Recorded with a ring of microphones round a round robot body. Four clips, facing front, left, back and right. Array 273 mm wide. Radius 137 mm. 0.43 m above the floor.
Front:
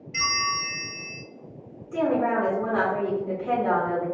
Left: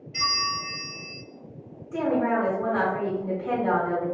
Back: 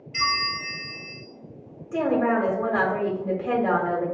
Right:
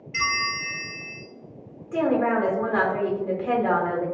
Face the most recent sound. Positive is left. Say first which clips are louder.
# right 2 dB, back 1 dB
turn(degrees=-130)